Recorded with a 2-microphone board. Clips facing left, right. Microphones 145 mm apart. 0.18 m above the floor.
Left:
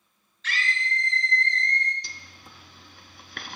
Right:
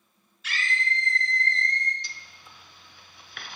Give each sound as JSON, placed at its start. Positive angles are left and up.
{"t": 0.4, "sound": "a scream", "side_deg": -10, "distance_m": 3.0}
{"t": 2.0, "sound": "a zipper", "side_deg": 60, "distance_m": 0.8}